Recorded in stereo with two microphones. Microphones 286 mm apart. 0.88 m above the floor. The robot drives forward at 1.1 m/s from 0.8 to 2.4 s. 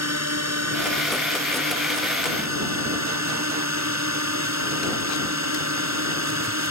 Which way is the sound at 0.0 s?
65° right (ahead or behind).